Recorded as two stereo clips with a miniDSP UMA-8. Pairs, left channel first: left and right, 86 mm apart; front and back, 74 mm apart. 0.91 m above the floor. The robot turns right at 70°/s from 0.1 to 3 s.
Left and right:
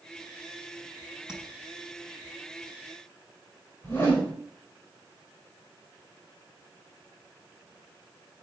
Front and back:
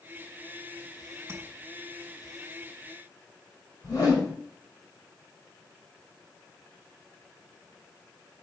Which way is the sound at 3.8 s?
30° left.